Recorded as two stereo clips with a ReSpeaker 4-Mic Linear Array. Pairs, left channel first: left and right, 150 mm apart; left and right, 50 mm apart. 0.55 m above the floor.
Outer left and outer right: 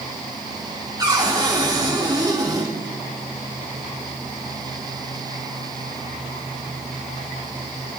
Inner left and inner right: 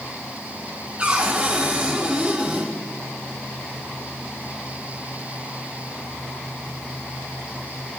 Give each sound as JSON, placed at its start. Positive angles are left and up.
{"t": 1.0, "sound": "a cupboard door", "side_deg": -25, "distance_m": 6.5}